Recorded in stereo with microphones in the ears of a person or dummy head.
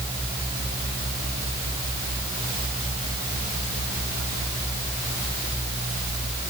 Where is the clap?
No clap in this recording.